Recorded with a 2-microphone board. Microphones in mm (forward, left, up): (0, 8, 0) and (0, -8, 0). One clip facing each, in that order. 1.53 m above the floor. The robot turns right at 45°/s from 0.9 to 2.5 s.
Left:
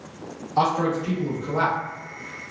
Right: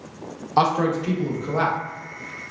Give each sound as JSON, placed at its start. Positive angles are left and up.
{"t": 0.6, "sound": "a man speaking", "azimuth_deg": -40, "distance_m": 0.8}